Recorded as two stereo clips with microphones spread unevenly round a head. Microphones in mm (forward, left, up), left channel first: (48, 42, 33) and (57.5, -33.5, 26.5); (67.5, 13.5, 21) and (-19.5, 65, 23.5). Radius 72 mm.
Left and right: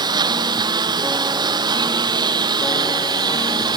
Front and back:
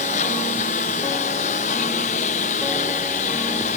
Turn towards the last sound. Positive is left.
turn(degrees=-60)